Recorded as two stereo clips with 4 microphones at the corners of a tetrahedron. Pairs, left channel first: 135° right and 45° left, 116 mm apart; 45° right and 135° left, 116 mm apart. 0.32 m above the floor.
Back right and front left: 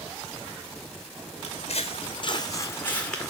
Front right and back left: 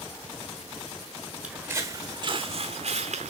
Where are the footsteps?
145° right, 1.2 m; by 3.3 s 140° left, 1.3 m.